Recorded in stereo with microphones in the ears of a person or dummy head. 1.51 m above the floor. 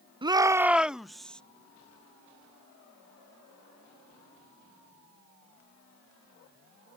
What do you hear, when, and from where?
0.2 s a shout: 25° right (ahead or behind); by 1.4 s 5° left (ahead or behind)